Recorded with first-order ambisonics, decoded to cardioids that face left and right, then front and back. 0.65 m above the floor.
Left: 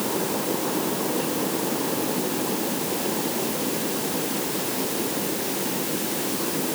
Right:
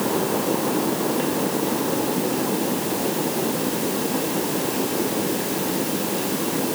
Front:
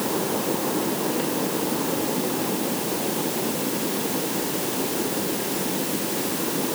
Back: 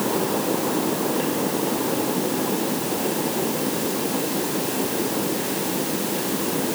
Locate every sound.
Only background noise.